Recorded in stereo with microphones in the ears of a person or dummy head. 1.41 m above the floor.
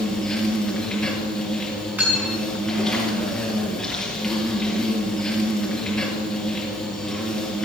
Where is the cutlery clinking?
5° right (ahead or behind), 6.5 m.